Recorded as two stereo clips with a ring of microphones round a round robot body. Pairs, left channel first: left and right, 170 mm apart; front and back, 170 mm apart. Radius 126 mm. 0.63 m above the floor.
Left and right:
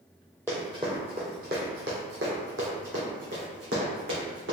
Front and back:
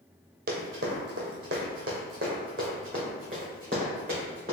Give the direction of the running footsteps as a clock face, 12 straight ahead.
6 o'clock.